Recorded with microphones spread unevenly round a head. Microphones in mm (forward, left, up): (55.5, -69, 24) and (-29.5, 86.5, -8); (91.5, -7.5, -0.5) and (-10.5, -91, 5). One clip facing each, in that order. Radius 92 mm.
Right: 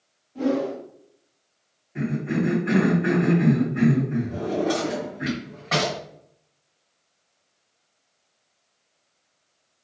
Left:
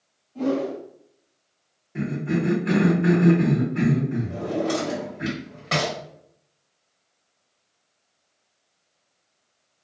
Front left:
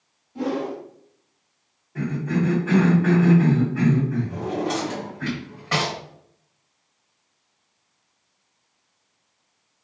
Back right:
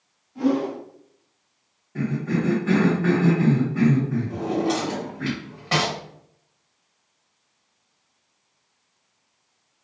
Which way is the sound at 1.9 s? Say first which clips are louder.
Even, even; 155° left.